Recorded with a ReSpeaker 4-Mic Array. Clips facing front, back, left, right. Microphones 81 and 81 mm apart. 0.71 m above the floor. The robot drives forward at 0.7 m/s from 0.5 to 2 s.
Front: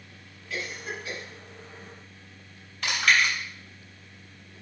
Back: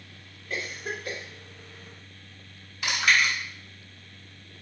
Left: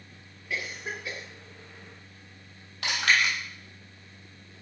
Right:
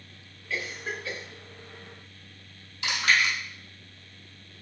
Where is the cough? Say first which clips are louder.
Back 1 dB, right 1 dB; 160° left, 2.0 m; by 1.2 s 165° left, 2.5 m.